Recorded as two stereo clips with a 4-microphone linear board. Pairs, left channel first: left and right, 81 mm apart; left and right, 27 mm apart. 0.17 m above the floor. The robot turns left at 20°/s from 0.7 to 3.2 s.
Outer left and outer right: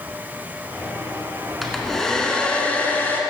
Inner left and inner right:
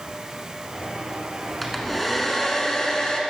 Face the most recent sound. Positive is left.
turn(degrees=150)